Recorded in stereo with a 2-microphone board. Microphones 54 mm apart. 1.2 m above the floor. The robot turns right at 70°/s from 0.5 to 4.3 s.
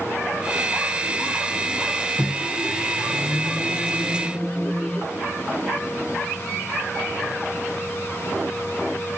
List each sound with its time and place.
2.2 s a microwave: 15° left, 0.6 m; by 5.1 s 160° left, 0.6 m